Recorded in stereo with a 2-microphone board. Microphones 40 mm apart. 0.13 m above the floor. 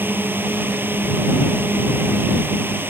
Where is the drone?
55° right (ahead or behind); by 2.9 s 60° right (ahead or behind).